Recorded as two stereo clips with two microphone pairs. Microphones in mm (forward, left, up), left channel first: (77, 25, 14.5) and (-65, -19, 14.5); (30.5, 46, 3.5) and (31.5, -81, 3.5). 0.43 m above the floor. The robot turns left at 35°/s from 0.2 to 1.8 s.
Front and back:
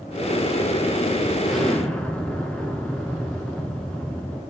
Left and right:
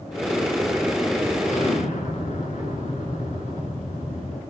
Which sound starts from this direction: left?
An explosion, at 1.4 s.